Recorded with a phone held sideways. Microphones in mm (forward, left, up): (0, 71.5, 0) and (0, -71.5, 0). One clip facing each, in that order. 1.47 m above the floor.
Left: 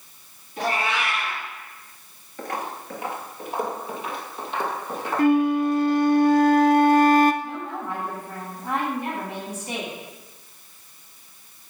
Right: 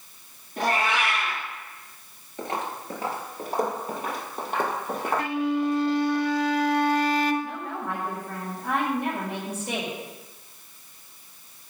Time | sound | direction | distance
0.6 | a cat meowing | 45° right (ahead or behind) | 5 m
2.4 | footsteps | 20° right (ahead or behind) | 1.5 m
5.2 | a flute | 45° left (ahead or behind) | 0.7 m
7.4 | a woman speaking | 60° right (ahead or behind) | 5.5 m